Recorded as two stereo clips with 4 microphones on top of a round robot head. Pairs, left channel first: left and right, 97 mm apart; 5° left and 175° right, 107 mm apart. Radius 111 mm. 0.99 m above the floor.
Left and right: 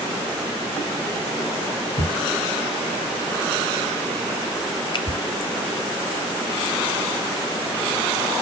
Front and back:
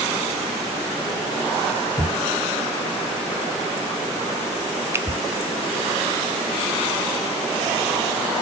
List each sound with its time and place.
2.0 s a thud: 70° left, 5.5 m
4.9 s a finger snap: 120° left, 0.9 m